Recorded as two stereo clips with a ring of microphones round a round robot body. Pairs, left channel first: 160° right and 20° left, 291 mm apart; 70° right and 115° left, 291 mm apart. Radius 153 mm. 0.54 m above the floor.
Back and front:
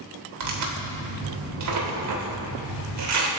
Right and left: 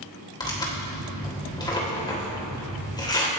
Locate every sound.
0.4 s tearing paper: 10° left, 2.5 m